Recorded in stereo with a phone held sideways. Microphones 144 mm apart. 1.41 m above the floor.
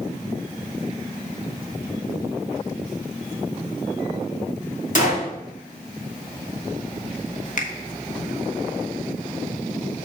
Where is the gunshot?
60° left (ahead or behind), 3 m.